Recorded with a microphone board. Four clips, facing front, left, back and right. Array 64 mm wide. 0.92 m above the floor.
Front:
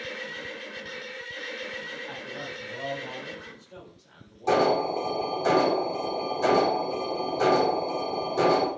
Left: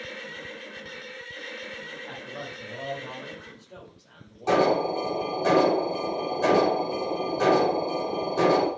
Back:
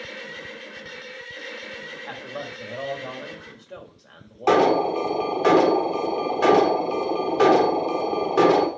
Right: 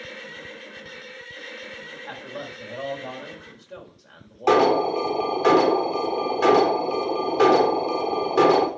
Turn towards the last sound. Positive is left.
turn(degrees=-145)